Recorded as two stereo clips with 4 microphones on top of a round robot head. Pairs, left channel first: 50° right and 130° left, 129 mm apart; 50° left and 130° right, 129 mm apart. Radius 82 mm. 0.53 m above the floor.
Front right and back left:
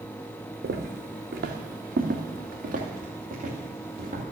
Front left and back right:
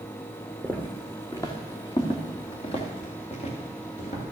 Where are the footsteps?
130° left, 1.6 m; by 4.2 s 90° left, 3.5 m.